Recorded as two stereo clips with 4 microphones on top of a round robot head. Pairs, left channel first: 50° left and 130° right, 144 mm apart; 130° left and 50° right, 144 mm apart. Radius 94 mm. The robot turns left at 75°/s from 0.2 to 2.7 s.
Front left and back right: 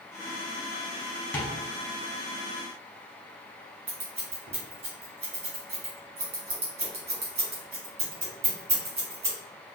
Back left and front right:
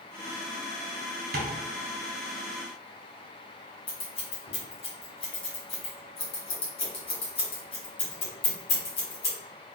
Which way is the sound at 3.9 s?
Straight behind.